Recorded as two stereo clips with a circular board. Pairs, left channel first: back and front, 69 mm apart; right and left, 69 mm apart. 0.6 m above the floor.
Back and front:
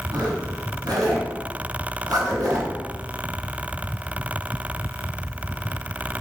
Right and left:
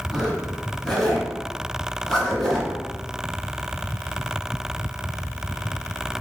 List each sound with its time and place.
0.1 s a zipper: 10° right, 1.6 m